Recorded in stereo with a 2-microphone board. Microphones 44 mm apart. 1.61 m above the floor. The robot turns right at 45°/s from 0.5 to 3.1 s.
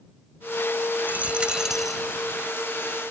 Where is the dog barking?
No dog barking in this recording.